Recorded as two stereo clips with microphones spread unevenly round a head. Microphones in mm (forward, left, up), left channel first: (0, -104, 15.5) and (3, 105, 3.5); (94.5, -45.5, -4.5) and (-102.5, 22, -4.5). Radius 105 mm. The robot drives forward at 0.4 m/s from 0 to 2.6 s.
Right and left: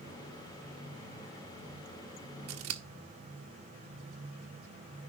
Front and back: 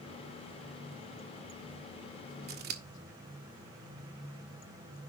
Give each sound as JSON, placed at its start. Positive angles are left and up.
{"t": 2.5, "sound": "scissors", "azimuth_deg": 110, "distance_m": 1.5}